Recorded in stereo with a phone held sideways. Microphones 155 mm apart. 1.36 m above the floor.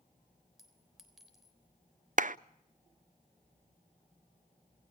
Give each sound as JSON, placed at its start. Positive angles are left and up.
{"t": 0.6, "sound": "a clink", "side_deg": 0, "distance_m": 3.5}
{"t": 2.2, "sound": "a clap", "side_deg": -60, "distance_m": 0.5}